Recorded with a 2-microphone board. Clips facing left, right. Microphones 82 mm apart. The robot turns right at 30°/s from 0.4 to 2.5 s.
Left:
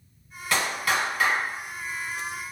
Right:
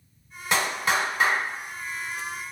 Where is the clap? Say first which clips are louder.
Right 1 dB; 20° right (ahead or behind), 0.9 m; by 1.4 s 25° right (ahead or behind), 0.9 m.